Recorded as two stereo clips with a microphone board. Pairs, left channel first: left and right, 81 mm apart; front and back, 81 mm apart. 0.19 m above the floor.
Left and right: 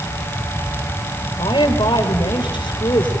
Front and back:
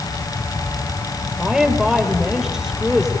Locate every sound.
1.4 s a woman speaking: 100° left, 4.5 m